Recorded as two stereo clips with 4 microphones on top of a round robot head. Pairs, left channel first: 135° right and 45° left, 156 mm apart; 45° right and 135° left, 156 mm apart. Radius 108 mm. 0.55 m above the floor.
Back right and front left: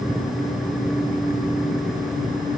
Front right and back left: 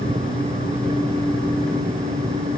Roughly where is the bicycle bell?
No bicycle bell in this recording.